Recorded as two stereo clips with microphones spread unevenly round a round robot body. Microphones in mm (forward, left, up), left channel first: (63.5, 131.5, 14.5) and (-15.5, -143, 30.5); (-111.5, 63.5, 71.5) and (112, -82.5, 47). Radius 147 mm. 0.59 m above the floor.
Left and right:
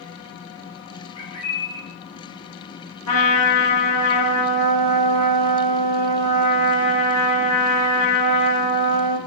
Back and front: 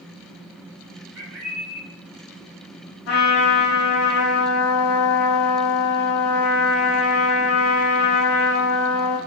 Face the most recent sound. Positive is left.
turn(degrees=110)